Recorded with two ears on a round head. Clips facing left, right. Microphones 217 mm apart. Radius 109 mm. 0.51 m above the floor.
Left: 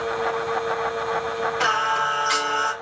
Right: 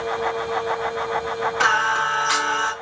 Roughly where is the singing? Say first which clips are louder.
Even; right.